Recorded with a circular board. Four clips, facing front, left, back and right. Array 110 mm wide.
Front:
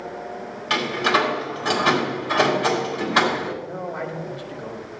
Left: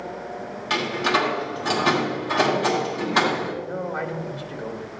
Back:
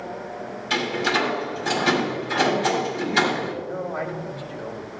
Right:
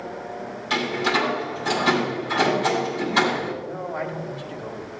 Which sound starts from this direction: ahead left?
A door slam, at 0.7 s.